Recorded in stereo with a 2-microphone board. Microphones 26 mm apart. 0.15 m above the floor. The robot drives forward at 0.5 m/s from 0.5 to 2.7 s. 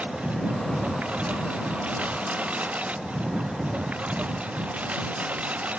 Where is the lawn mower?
65° right (ahead or behind).